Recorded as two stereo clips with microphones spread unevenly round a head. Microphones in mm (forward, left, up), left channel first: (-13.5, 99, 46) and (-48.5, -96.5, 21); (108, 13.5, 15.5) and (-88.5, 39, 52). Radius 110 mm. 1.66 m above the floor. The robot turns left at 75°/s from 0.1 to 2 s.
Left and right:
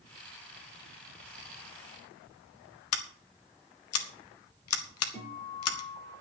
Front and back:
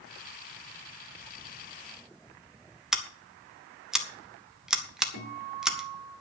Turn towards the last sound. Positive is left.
turn(degrees=5)